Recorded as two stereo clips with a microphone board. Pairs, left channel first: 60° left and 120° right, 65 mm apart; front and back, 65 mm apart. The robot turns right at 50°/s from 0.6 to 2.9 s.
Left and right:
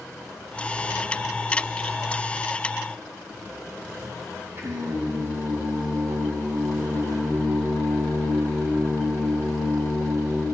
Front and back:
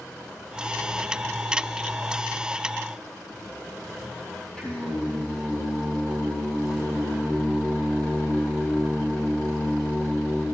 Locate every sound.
4.6 s singing: 75° right, 4 m